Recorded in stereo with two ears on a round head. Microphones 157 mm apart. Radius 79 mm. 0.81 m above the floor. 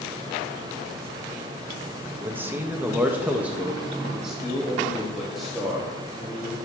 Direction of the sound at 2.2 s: 10° right (ahead or behind).